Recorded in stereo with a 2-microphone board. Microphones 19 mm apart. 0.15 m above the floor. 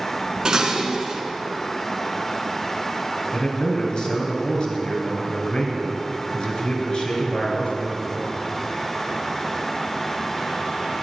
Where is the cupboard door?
I don't hear a cupboard door.